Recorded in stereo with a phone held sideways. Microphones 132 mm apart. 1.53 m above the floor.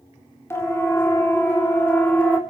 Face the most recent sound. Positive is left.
turn(degrees=10)  # may be behind; listen again after turning